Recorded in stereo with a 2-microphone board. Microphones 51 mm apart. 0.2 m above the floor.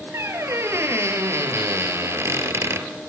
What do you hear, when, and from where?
0.1 s a squeak: 60° right (ahead or behind), 3.5 m